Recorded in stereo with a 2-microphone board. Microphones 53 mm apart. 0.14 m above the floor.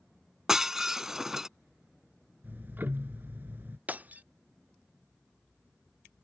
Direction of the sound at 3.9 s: 30° right (ahead or behind).